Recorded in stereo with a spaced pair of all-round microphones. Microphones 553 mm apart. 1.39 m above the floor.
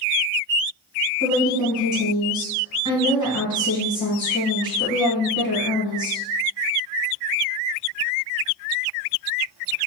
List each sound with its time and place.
1.2 s a woman speaking: 30° left (ahead or behind), 1.8 m